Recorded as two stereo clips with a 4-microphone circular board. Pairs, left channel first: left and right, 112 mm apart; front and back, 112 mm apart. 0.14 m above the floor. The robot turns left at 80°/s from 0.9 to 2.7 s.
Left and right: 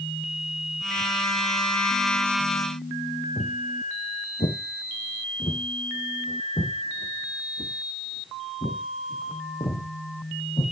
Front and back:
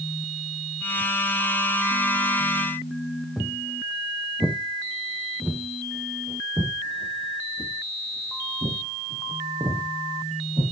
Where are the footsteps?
85° left, 2 m; by 10.6 s 140° left, 5 m.